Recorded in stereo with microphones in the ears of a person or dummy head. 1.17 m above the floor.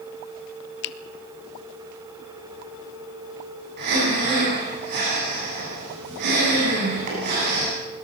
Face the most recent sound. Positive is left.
turn(degrees=-50)  # may be behind; listen again after turning